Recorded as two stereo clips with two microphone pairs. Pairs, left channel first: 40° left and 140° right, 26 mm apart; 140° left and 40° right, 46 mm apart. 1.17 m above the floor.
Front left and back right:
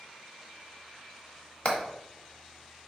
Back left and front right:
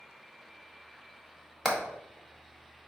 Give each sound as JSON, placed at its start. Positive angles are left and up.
{"t": 1.6, "sound": "hammering", "azimuth_deg": 55, "distance_m": 1.2}